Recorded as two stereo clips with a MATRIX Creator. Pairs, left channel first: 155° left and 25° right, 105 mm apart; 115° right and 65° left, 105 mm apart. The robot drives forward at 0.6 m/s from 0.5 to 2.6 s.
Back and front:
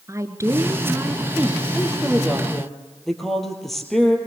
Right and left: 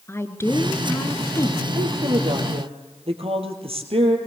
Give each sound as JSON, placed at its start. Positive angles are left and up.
{"t": 0.1, "sound": "a woman speaking", "azimuth_deg": -65, "distance_m": 1.9}
{"t": 1.7, "sound": "a woman speaking", "azimuth_deg": 60, "distance_m": 4.0}